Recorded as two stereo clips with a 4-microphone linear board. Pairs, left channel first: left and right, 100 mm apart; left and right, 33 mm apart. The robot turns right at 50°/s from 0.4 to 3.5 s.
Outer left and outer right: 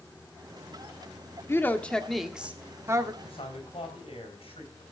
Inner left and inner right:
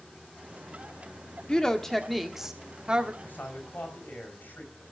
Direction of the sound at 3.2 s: 65° left (ahead or behind).